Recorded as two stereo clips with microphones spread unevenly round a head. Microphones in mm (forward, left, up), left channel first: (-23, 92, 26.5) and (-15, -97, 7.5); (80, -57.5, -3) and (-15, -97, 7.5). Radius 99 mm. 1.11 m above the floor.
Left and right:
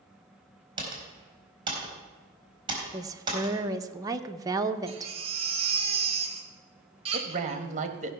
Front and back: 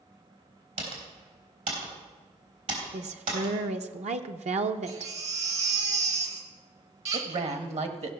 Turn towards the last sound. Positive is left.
turn(degrees=-140)